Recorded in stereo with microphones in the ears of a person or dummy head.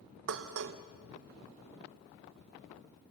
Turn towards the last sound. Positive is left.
turn(degrees=-60)  # may be behind; listen again after turning